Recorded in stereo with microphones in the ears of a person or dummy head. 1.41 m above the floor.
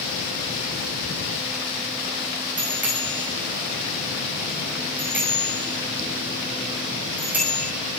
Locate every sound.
2.6 s a bicycle bell: 15° right (ahead or behind), 5.5 m